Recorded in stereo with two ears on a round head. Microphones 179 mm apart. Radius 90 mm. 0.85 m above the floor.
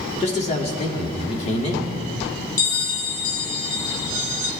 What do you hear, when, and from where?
0.2 s a man speaking: 35° left (ahead or behind), 2.0 m
2.6 s a bell: 45° left (ahead or behind), 0.9 m